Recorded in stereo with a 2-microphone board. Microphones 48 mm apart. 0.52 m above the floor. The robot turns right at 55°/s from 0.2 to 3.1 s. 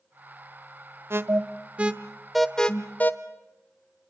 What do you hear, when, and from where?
1.1 s an alarm: 60° right (ahead or behind), 1.3 m; by 3.1 s 40° left (ahead or behind), 1.3 m